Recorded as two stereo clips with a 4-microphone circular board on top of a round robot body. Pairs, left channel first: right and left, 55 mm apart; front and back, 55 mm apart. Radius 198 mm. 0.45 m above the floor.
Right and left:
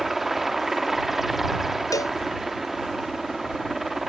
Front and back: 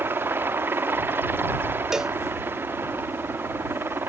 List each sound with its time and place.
0.0 s a helicopter: 175° left
1.9 s a cowbell: 100° right